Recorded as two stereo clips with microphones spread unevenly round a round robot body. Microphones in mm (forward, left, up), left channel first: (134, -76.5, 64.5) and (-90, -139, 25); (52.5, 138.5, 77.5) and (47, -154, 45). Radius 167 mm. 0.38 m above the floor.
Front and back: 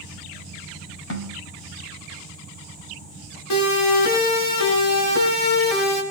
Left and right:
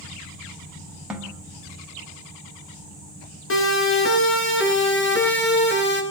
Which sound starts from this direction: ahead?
A snare drum, at 1.1 s.